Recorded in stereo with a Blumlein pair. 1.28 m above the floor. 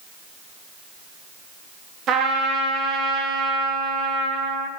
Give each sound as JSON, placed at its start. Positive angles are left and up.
{"t": 2.1, "sound": "a trumpet", "azimuth_deg": -30, "distance_m": 0.6}